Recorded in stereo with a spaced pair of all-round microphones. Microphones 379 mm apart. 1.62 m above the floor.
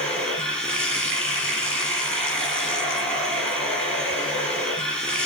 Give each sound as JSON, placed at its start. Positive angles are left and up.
{"t": 0.0, "sound": "running water", "side_deg": 5, "distance_m": 6.0}